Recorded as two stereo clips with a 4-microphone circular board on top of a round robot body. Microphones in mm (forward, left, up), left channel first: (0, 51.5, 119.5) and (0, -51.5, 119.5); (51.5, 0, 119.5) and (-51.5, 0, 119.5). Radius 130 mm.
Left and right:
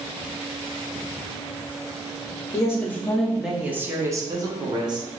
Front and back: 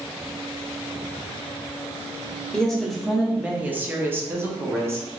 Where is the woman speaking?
80° left, 1.0 m; by 5.1 s 120° right, 1.5 m.